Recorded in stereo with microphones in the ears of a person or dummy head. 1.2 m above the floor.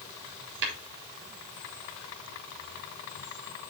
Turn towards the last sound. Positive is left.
turn(degrees=-65)  # may be behind; listen again after turning